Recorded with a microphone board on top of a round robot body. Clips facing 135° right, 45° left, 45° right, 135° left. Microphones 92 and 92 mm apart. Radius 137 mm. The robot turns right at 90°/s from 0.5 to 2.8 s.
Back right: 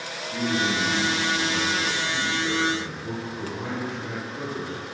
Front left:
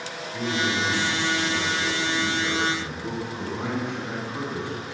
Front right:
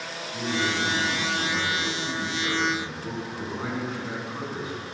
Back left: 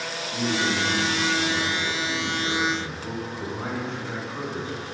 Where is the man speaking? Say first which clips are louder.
Back right 1 dB, back left 2 dB; 175° right, 6.5 m; by 4.8 s 35° left, 6.5 m.